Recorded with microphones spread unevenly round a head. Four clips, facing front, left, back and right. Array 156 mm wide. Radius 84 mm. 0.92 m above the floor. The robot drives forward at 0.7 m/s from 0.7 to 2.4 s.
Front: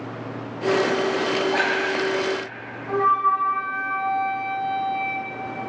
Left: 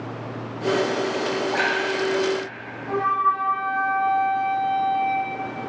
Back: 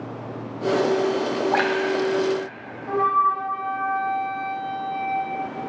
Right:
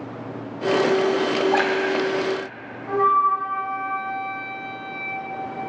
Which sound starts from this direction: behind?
A flute, at 2.9 s.